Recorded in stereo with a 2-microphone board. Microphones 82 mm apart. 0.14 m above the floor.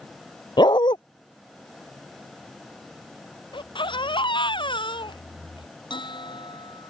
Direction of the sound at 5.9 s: 75° left (ahead or behind).